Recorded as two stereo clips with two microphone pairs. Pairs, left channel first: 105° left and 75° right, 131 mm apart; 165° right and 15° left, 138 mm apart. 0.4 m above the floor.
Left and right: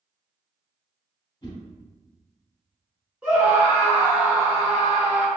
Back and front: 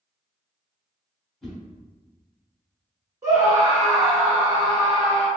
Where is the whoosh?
110° left, 1.1 m.